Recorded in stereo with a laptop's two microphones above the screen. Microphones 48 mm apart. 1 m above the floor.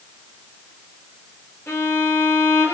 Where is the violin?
50° left (ahead or behind), 1.3 m.